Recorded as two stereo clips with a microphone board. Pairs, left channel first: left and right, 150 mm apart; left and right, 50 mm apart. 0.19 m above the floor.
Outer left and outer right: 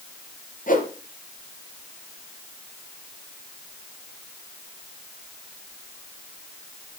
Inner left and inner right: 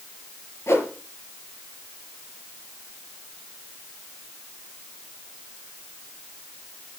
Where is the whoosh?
60° left (ahead or behind), 3.5 m.